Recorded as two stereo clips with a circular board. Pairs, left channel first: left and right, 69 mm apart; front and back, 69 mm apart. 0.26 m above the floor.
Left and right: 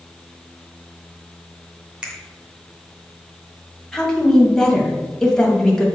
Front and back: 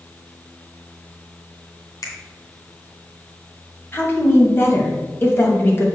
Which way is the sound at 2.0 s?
20° right.